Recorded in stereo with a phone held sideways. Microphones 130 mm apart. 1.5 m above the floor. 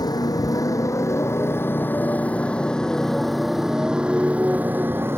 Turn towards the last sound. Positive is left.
turn(degrees=-20)  # may be behind; listen again after turning